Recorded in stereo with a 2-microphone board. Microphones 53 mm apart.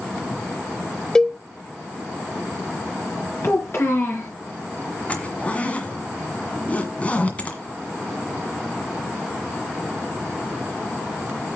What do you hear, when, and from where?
1.1 s a cowbell: 10° left (ahead or behind), 0.6 m
3.4 s a child speaking: 55° left (ahead or behind), 3 m
5.1 s a zipper: 25° left (ahead or behind), 1.7 m